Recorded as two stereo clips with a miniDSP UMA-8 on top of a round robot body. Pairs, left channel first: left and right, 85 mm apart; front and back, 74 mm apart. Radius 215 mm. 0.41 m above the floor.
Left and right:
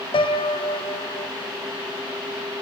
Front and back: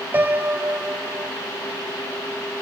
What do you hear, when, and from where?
0.1 s a piano: 115° left, 1.0 m